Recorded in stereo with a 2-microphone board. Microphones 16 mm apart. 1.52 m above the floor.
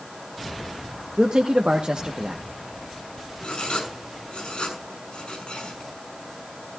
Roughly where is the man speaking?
Right.